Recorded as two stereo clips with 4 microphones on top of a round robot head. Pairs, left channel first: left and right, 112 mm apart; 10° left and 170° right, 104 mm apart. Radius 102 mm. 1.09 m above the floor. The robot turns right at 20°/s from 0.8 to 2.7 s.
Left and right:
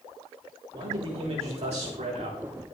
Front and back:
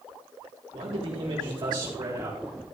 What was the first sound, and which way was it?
A man speaking, 135° right.